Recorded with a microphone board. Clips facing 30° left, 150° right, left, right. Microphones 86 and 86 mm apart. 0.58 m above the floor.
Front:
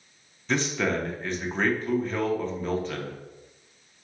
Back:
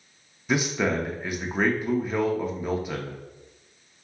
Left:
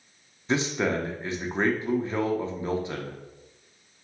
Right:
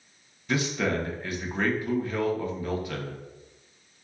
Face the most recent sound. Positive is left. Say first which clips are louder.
# back 1 dB, left 1 dB
turn(degrees=135)